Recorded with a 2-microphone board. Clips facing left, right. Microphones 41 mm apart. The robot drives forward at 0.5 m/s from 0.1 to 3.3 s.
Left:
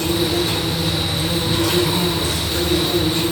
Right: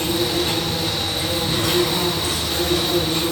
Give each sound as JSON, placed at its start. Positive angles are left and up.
{"t": 0.0, "sound": "an insect", "side_deg": -40, "distance_m": 5.0}